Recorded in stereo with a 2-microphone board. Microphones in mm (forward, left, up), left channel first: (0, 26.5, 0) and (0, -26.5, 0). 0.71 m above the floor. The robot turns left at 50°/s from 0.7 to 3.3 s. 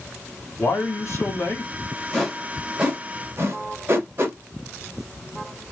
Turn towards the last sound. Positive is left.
turn(degrees=-45)  # may be behind; listen again after turning